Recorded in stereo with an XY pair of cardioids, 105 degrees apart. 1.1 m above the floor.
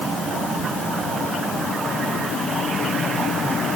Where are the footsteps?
I don't hear footsteps.